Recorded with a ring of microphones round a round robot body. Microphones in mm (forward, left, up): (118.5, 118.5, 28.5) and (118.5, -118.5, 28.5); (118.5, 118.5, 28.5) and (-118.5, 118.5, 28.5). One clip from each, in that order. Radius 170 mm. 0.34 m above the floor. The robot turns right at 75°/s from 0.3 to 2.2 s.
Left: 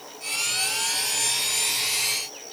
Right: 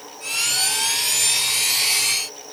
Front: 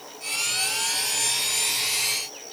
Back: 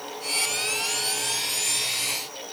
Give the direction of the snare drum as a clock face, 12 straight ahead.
No snare drum in this recording.